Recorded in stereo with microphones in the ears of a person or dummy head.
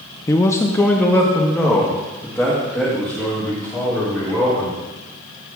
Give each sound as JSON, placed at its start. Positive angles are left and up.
{"t": 0.3, "sound": "a man speaking", "side_deg": 15, "distance_m": 0.5}